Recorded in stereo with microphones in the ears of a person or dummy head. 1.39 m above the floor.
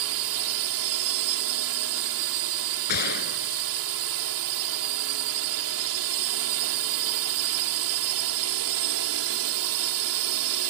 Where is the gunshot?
55° left (ahead or behind).